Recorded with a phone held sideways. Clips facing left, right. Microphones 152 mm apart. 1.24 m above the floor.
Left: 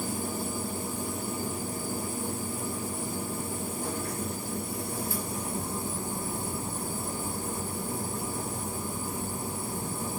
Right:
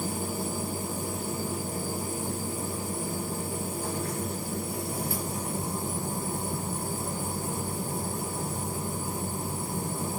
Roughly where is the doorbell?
I don't hear a doorbell.